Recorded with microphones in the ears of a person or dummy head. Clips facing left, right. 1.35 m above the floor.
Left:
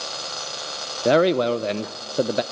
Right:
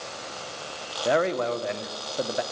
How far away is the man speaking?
About 0.5 m.